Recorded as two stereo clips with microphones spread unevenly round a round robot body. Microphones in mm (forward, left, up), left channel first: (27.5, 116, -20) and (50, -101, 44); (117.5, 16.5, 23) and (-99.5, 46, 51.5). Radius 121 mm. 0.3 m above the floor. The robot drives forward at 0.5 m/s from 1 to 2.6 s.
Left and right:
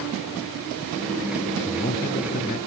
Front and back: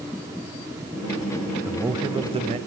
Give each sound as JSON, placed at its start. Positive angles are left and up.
{"t": 1.6, "sound": "a man speaking", "azimuth_deg": 90, "distance_m": 1.4}